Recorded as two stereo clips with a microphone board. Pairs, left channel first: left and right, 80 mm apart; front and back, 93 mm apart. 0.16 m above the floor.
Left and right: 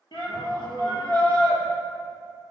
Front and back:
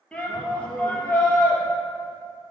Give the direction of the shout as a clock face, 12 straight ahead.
9 o'clock.